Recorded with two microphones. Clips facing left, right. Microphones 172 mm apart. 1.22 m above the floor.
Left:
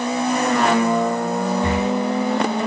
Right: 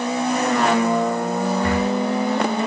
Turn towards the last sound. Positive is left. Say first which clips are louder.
# even
turn(degrees=20)  # may be behind; listen again after turning